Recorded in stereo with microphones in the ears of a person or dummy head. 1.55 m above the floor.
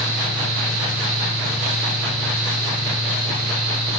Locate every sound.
0.0 s a fan: centre (ahead or behind), 8.5 m